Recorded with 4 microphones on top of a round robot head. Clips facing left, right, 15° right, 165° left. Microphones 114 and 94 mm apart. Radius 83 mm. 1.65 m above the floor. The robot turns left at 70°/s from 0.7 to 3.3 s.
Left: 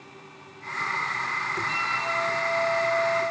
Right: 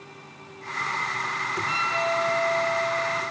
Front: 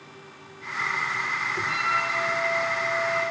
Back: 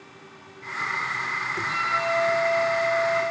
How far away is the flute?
About 1.6 m.